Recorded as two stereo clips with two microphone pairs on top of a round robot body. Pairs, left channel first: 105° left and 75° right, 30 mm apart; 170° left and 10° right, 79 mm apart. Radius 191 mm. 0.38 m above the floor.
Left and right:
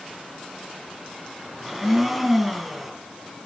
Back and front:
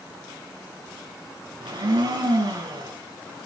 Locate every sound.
1.6 s a blender: 20° left, 4.5 m